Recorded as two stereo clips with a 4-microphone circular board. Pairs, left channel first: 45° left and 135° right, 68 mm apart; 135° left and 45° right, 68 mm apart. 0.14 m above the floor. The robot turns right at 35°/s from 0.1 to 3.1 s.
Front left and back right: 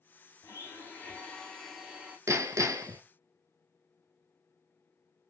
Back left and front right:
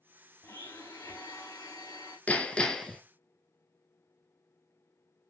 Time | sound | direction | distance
0.4 | a blender | 90° left | 1.2 m
2.3 | hammering | 160° right | 0.6 m